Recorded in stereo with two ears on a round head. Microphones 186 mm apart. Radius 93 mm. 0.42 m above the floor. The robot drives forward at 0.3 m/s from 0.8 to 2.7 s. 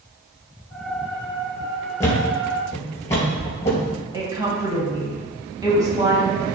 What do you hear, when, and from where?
2.0 s a thud: 15° left (ahead or behind), 3 m
4.1 s a woman speaking: 20° right (ahead or behind), 2.5 m